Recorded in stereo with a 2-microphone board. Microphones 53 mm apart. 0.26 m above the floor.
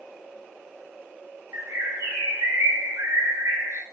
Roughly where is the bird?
Right.